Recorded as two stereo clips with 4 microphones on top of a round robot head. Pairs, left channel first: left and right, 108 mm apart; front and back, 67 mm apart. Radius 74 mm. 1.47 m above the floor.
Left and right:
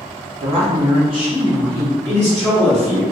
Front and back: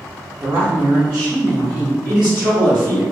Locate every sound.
0.4 s a woman speaking: 120° right, 0.6 m; by 1.9 s 135° right, 1.7 m
2.0 s a man speaking: 110° right, 1.6 m